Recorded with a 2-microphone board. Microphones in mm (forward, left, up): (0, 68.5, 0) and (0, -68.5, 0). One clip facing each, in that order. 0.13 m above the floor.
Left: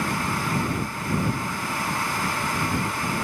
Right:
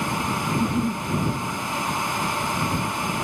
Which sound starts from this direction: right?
A giggle, at 0.5 s.